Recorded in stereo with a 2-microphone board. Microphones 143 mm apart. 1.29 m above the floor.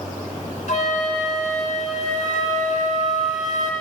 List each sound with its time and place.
0.7 s a flute: 65° left (ahead or behind), 3 m